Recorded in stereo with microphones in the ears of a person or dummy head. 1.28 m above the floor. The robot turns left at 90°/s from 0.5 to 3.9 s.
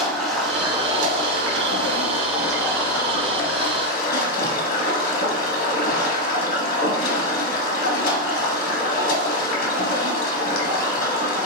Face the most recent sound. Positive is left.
turn(degrees=55)